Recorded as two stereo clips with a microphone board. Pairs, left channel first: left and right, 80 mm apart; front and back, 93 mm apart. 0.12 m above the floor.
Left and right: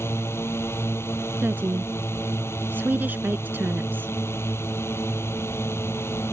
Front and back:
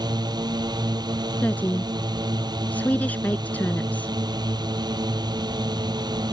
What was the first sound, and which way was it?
A drone, 145° left.